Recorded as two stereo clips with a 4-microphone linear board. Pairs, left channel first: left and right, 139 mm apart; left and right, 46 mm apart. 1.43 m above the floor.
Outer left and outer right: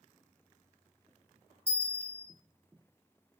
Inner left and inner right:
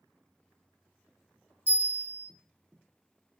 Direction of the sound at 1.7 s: 45° right (ahead or behind).